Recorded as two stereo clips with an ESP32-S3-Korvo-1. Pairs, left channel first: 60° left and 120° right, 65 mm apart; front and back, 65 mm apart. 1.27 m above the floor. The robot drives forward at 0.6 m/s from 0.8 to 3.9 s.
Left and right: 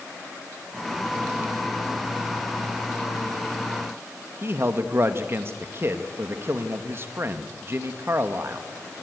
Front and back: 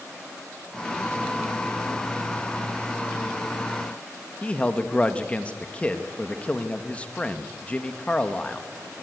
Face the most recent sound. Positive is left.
turn(degrees=-70)